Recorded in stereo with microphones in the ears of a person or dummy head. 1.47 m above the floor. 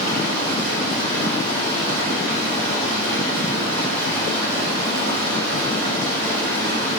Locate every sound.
0.0 s running water: 85° right, 0.9 m